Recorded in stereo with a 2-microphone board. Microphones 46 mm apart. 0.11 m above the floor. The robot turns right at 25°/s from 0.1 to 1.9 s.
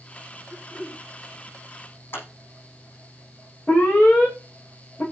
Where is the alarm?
25° left (ahead or behind), 8.5 m.